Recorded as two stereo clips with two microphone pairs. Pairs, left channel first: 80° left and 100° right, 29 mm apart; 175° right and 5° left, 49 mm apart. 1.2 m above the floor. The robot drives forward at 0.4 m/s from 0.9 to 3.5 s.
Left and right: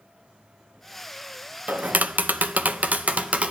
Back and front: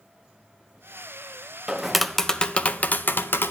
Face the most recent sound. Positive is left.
turn(degrees=-135)